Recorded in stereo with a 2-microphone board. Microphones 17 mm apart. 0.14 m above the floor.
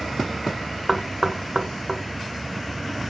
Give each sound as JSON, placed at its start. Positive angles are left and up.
{"t": 0.9, "sound": "knocking", "side_deg": -15, "distance_m": 1.2}